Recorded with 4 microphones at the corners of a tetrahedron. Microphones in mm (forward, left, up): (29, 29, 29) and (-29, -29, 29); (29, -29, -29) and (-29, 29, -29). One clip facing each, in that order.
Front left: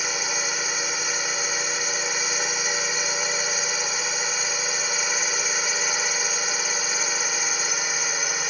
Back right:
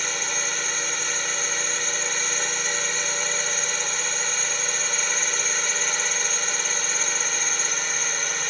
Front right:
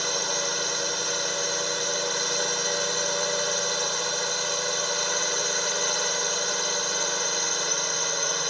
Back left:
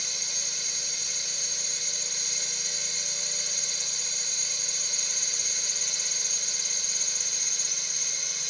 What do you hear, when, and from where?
0.0 s a drone: 35° right